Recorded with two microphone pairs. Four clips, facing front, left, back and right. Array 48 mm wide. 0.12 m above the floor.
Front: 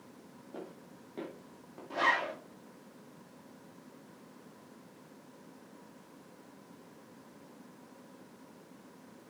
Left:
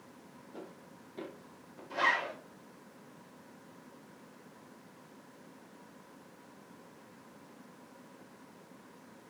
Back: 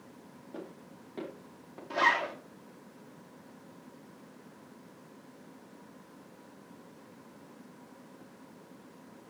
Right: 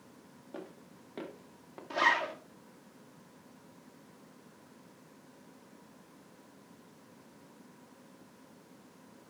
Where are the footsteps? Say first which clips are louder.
Right 3 dB, back 1 dB; 95° right, 5.5 m; by 1.8 s 100° right, 4 m.